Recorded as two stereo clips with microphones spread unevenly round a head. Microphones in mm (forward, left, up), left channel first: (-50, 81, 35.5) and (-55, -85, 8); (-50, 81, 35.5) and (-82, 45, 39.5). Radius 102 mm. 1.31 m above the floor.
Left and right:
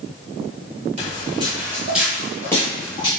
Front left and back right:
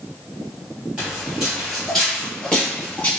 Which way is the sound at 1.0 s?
100° right.